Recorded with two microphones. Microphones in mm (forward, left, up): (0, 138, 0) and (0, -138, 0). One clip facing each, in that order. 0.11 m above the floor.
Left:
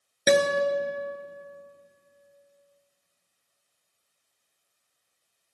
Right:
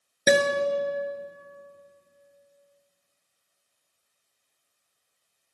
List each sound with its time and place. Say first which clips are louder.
0.3 s a guitar: even; 10° right (ahead or behind), 0.9 m